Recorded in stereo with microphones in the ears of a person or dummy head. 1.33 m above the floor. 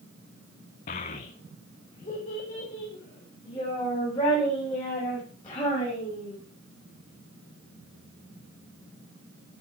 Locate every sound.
0.9 s a child speaking: 45° left (ahead or behind), 0.6 m; by 6.3 s 25° left (ahead or behind), 6.5 m